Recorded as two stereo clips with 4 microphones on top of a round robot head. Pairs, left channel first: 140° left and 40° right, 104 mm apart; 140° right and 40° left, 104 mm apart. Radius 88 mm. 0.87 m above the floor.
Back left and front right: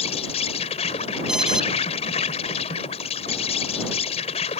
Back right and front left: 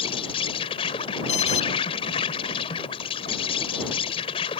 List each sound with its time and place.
0.0 s an insect: 175° left
1.3 s an alarm: 125° right